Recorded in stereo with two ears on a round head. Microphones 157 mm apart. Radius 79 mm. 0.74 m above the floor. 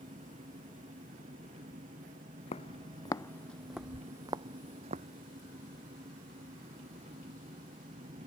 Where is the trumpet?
No trumpet in this recording.